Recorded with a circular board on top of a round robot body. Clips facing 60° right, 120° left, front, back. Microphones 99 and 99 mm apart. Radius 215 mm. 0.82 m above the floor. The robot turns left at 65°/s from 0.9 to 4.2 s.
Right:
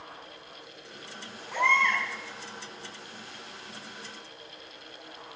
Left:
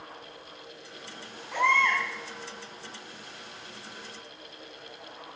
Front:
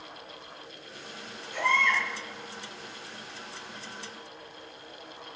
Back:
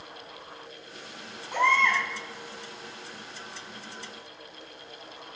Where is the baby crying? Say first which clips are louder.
Left 1 dB, back 3 dB; 150° right, 6 m; by 2.0 s 175° left, 6 m.